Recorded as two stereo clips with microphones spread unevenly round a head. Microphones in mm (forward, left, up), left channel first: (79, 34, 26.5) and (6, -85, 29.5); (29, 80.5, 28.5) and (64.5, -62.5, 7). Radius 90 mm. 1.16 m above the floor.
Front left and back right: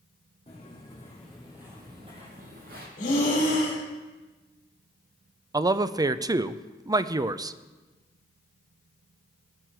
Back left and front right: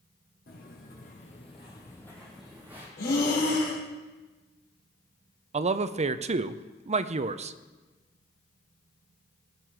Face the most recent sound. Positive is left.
turn(degrees=-60)